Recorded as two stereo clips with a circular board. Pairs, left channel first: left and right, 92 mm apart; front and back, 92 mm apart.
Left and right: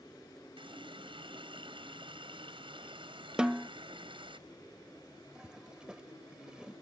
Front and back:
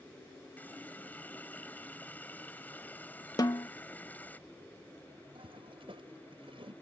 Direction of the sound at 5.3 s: 170° right.